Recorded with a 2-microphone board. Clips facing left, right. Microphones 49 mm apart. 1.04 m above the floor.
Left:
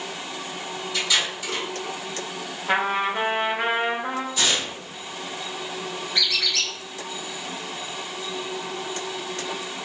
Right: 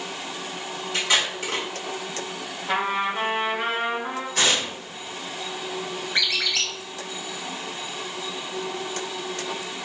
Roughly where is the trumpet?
Left.